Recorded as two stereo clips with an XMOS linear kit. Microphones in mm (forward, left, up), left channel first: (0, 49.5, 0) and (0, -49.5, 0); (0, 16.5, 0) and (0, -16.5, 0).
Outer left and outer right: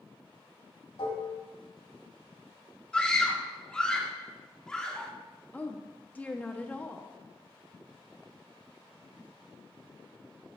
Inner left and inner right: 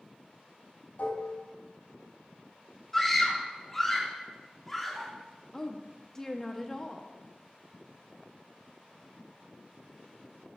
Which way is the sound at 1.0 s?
85° left.